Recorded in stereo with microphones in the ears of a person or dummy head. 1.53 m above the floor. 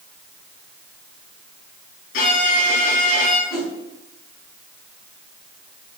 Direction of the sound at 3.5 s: 10° left (ahead or behind).